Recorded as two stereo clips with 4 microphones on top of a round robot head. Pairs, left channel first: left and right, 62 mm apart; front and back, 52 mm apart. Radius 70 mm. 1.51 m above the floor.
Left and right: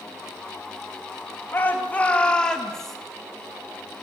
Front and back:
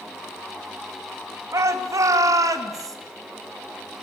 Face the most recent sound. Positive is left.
turn(degrees=175)